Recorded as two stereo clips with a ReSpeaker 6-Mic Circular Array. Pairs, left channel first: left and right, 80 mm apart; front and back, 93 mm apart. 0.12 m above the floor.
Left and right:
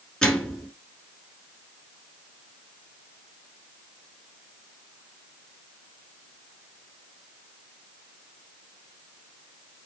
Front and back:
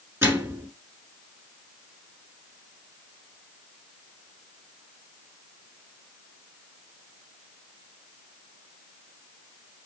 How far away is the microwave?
About 1.2 m.